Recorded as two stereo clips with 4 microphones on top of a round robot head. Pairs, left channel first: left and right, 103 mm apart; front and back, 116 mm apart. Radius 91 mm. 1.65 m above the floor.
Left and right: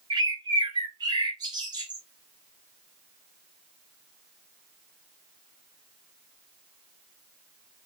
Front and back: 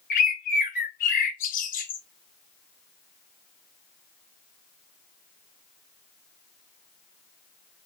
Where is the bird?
25° right, 0.9 m.